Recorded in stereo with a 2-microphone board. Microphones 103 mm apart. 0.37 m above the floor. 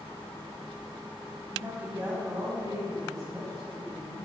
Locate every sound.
1.5 s a woman speaking: 5° right (ahead or behind), 2 m; by 4.2 s 55° right (ahead or behind), 3.5 m